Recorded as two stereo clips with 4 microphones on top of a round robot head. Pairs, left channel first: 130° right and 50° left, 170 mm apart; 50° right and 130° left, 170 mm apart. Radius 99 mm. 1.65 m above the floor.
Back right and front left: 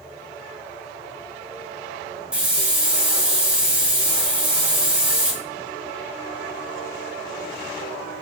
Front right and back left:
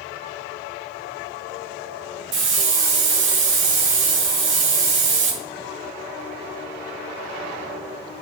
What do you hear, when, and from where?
2.3 s a hiss: 135° left, 2.5 m